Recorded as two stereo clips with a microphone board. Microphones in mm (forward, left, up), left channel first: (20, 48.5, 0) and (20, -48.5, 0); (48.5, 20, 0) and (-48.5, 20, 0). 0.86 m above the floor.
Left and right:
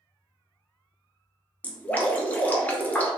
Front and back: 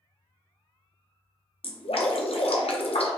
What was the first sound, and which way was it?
Dripping, 15° left.